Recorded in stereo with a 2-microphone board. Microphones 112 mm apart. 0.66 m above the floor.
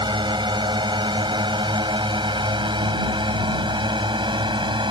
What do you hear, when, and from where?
0.0 s a drone: 45° right (ahead or behind)